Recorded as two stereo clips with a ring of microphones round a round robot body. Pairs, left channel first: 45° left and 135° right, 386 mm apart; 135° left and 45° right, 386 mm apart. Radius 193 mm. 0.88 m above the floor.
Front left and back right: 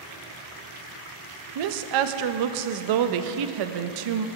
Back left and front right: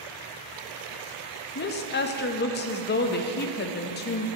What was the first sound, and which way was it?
A woman speaking, 160° right.